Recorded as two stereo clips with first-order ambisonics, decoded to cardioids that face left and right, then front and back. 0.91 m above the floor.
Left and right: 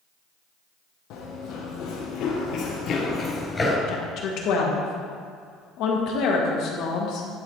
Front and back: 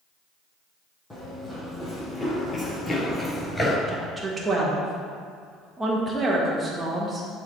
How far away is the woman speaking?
About 1.3 m.